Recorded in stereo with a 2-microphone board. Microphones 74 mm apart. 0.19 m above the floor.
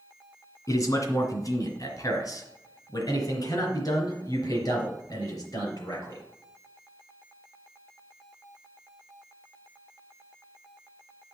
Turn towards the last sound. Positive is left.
turn(degrees=55)  # may be behind; listen again after turning